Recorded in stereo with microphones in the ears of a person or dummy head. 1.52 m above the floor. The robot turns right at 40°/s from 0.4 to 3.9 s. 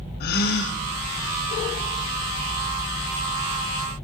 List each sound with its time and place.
0.2 s a gasp: 55° left (ahead or behind), 0.6 m; by 0.8 s 70° left (ahead or behind), 0.6 m